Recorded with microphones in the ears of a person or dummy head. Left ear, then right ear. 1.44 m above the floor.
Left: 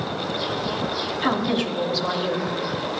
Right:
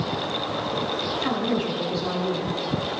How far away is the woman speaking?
About 3.5 m.